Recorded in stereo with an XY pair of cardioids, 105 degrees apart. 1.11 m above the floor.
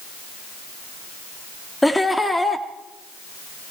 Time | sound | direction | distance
1.8 | laughter | 5° left | 1.8 m